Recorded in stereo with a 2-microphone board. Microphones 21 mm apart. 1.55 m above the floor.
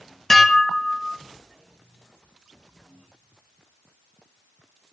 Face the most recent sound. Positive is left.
turn(degrees=15)  # may be behind; listen again after turning